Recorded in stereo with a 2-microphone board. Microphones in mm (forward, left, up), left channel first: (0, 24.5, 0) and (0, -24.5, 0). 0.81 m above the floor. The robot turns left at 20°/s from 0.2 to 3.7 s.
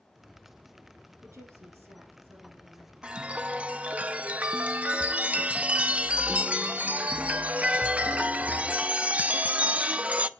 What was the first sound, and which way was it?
A woman speaking, 105° right.